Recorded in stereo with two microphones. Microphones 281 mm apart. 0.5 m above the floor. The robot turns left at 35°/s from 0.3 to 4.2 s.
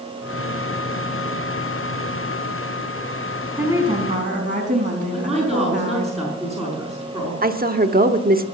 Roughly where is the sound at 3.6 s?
Centre.